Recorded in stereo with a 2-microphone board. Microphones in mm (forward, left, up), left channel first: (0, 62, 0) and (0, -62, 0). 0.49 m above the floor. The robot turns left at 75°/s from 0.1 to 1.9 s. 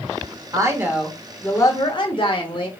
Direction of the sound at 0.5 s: 135° right.